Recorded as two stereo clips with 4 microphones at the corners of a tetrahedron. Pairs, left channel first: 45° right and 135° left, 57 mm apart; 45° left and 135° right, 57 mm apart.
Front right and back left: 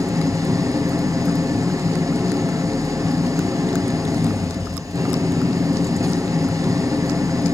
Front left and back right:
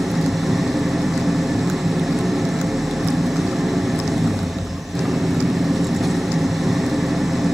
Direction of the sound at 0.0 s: 140° left.